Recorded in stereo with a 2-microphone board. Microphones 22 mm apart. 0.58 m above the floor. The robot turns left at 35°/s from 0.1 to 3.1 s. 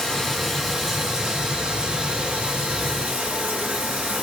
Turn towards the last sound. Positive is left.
turn(degrees=-90)